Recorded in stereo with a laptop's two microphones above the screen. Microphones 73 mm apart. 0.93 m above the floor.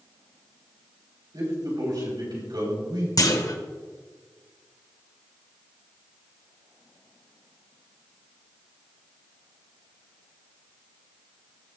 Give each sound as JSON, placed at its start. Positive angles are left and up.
{"t": 1.3, "sound": "a man speaking", "side_deg": -80, "distance_m": 5.0}
{"t": 3.2, "sound": "a clunk", "side_deg": 55, "distance_m": 1.4}